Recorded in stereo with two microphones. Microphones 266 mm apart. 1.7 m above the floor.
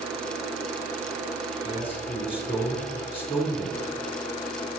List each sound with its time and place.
1.6 s a man speaking: 20° left (ahead or behind), 4.5 m